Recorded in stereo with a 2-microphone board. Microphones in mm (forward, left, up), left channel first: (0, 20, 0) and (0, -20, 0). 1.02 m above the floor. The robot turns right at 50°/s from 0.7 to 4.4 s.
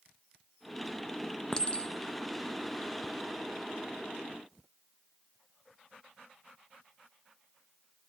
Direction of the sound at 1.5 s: 15° left (ahead or behind).